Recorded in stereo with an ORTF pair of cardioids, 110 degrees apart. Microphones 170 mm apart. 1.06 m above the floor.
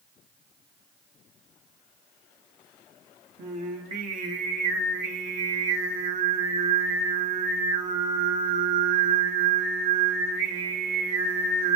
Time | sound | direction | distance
3.4 | singing | 50° right | 1.2 m